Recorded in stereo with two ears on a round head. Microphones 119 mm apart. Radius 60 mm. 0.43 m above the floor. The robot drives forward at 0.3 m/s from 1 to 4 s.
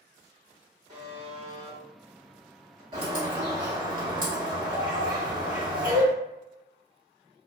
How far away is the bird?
About 1.9 m.